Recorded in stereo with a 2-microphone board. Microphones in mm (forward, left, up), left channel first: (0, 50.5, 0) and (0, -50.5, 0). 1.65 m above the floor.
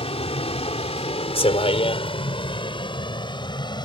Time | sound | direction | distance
0.0 | a vehicle | 75° left (ahead or behind) | ?